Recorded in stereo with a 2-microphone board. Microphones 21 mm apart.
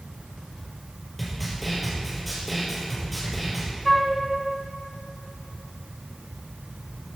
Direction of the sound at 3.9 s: 5° left (ahead or behind).